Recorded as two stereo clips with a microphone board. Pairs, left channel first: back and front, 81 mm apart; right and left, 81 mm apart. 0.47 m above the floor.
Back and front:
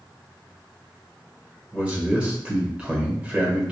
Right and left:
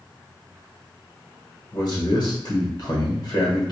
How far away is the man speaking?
About 1.4 m.